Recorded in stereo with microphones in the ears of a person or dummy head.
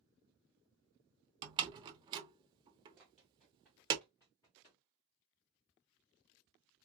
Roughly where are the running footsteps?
Centre.